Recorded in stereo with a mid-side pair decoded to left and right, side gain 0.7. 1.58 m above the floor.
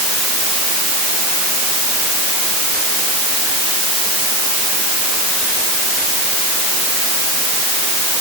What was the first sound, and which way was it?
Only background noise.